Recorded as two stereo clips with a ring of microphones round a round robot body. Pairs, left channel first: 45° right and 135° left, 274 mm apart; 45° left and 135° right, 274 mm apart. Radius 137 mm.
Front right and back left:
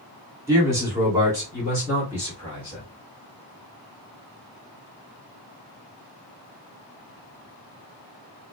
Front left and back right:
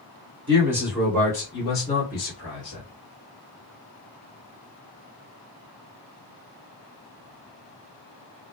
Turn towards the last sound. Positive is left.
turn(degrees=55)